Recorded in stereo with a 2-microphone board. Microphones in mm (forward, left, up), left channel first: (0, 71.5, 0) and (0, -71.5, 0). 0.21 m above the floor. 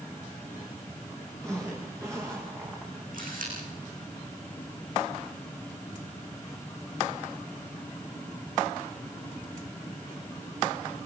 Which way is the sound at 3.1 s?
75° right (ahead or behind).